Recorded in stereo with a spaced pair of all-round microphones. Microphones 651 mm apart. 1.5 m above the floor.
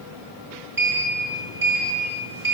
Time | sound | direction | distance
0.8 | a sliding door | 30° right (ahead or behind) | 1.3 m